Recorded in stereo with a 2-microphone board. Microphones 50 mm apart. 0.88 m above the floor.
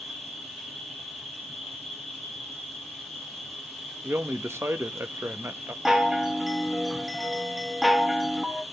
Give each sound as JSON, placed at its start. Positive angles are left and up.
{"t": 0.0, "sound": "an insect", "side_deg": 0, "distance_m": 3.5}
{"t": 4.0, "sound": "a man speaking", "side_deg": -65, "distance_m": 0.8}
{"t": 5.8, "sound": "a chime", "side_deg": -10, "distance_m": 0.7}